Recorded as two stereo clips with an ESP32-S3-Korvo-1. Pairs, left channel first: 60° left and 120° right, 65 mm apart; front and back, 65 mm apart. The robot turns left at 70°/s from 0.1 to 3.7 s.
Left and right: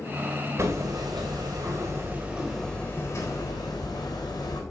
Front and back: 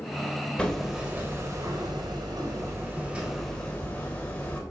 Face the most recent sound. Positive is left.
turn(degrees=65)